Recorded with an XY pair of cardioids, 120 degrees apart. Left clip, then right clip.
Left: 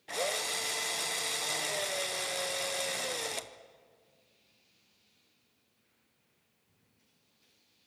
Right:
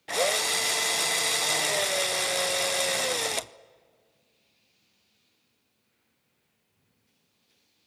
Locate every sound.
0.1 s a drill: 40° right, 0.5 m